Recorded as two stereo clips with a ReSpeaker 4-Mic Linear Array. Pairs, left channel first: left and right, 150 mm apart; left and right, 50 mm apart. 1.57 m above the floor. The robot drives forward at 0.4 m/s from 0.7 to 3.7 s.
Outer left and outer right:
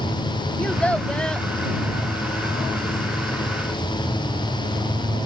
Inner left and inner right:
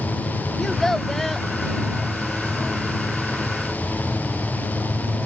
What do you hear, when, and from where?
0.6 s a child speaking: 10° left (ahead or behind); by 1.5 s 5° left (ahead or behind)